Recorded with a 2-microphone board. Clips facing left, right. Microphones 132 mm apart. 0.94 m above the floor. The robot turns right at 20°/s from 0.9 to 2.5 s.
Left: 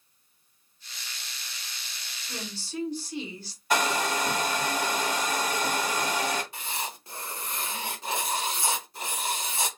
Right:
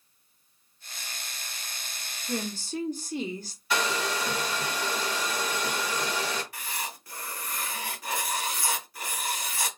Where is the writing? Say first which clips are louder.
Left 2 dB; 25° left (ahead or behind), 0.7 m.